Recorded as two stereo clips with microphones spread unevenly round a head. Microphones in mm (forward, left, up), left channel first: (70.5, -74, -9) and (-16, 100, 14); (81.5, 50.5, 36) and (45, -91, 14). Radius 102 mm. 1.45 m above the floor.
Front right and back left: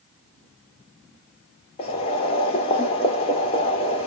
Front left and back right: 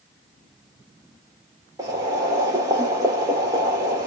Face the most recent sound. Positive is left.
turn(degrees=-55)